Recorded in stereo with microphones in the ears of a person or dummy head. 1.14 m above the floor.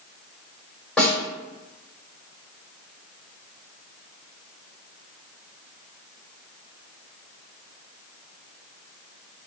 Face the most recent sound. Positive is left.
turn(degrees=0)  # may be behind; listen again after turning